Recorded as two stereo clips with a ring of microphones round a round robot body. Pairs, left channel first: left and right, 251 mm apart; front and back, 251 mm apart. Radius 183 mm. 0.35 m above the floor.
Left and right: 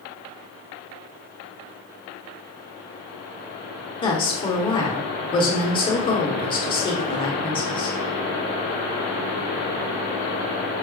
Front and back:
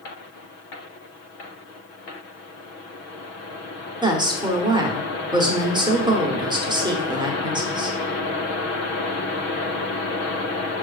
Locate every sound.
4.0 s a woman speaking: 130° left, 0.9 m